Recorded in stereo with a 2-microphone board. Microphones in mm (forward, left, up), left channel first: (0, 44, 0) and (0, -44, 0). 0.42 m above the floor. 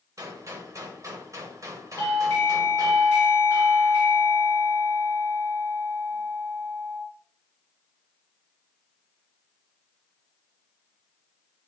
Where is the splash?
I don't hear a splash.